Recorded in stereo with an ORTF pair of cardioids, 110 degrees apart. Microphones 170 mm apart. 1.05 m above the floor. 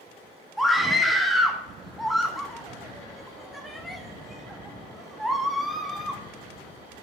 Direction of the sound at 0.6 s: Straight ahead.